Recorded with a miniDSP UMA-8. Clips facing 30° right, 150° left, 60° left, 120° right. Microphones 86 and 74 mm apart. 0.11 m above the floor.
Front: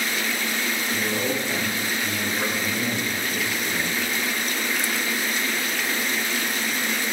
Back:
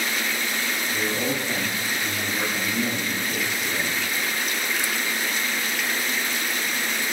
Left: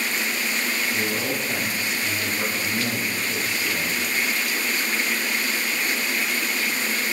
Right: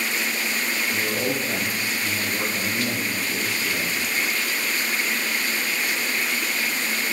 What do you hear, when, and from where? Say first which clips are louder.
0.9 s a man speaking: even, right 1 dB; 140° right, 3 m